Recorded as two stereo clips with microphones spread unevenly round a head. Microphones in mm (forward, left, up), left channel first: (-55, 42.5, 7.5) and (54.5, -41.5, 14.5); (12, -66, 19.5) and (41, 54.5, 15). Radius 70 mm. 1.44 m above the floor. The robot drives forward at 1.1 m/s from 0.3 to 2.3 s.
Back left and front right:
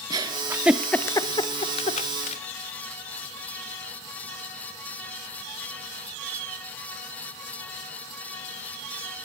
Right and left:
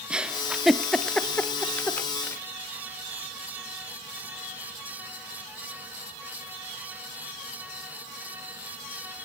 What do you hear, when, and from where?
0.1 s a giggle: 5° right, 1.1 m; by 2.4 s straight behind, 1.8 m